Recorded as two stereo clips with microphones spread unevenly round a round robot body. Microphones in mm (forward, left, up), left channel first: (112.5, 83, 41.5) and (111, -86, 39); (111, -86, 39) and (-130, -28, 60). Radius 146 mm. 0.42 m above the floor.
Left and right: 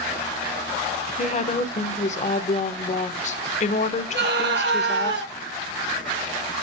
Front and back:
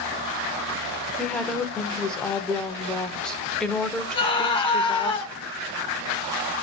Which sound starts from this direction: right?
A scream, at 4.1 s.